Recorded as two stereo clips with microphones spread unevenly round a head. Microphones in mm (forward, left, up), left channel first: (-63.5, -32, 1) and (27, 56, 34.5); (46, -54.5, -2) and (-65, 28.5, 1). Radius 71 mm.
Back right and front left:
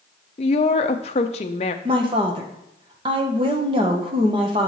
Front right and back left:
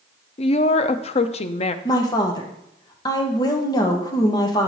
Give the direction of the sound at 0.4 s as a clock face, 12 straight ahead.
3 o'clock.